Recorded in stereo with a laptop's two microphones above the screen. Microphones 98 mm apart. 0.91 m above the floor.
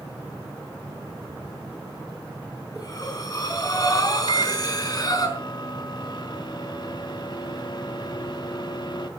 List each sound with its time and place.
2.8 s breathing: 45° left (ahead or behind), 4.5 m
4.3 s a microwave: 50° left (ahead or behind), 1.5 m